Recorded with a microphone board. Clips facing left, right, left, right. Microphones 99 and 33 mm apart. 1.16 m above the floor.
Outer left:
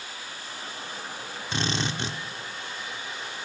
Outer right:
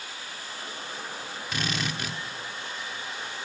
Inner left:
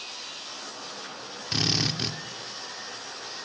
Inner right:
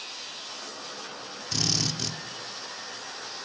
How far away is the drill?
About 1.9 m.